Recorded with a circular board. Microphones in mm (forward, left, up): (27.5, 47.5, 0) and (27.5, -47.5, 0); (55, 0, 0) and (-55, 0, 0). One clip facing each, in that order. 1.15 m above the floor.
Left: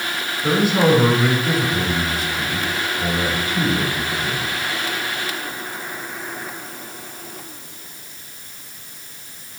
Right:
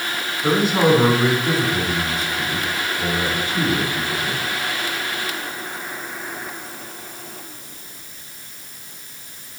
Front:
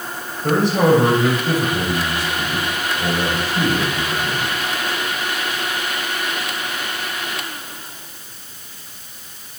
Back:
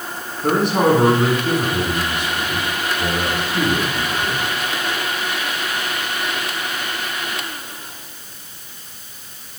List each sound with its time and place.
0.4 s a man speaking: 155° right, 4 m